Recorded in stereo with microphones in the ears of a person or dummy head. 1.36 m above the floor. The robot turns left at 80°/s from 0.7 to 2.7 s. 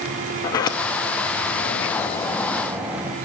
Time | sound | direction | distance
0.4 | a sliding door | 145° left | 0.8 m